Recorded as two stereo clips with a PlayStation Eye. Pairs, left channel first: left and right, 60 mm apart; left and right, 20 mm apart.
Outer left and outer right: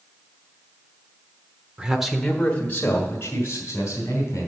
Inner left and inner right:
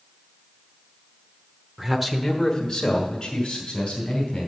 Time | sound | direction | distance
1.8 | a man speaking | 15° right (ahead or behind) | 1.1 m